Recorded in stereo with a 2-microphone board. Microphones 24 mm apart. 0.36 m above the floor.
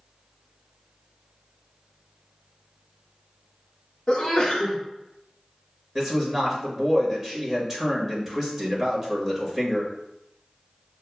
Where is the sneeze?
20° left (ahead or behind), 0.9 m.